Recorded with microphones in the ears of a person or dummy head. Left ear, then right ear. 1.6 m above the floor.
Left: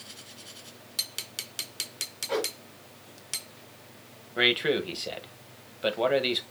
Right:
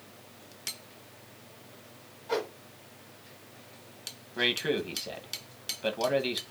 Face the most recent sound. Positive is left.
turn(degrees=10)  # may be behind; listen again after turning